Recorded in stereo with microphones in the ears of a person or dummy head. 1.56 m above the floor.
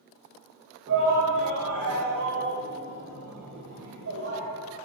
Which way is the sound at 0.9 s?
60° right (ahead or behind).